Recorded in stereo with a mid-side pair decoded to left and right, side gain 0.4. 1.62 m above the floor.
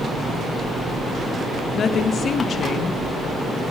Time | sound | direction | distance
1.7 | a woman speaking | 55° left | 2.5 m